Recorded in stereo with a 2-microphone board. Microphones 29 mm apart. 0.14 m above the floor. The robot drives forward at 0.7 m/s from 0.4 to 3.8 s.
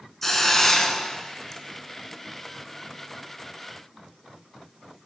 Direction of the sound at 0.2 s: 10° left (ahead or behind).